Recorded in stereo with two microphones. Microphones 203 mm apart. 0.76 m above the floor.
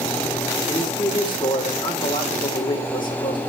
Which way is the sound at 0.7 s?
25° left (ahead or behind).